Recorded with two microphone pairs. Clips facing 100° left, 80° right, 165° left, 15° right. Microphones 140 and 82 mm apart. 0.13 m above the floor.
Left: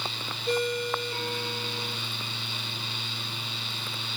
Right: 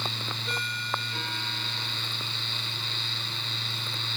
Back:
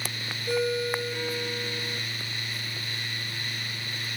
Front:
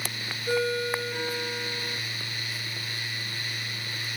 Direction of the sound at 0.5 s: 55° left.